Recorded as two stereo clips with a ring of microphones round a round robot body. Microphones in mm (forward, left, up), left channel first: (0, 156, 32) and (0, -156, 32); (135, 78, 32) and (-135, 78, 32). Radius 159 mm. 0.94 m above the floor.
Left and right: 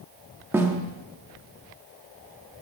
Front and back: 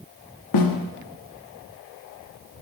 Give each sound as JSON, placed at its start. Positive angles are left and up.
{"t": 0.5, "sound": "a snare drum", "azimuth_deg": -5, "distance_m": 1.2}